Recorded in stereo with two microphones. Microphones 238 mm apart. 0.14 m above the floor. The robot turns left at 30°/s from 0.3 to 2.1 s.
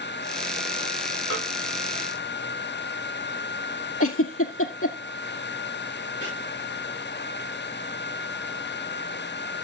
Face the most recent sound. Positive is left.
turn(degrees=50)  # may be behind; listen again after turning